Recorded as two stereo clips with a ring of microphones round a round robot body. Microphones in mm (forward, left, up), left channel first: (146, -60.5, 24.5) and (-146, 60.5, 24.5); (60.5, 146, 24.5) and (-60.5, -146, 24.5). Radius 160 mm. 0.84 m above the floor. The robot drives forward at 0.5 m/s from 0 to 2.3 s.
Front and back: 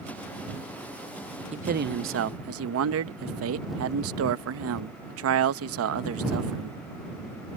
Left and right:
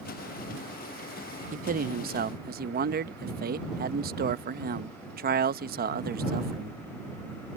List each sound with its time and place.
1.5 s a man speaking: 150° right; by 6.8 s 170° right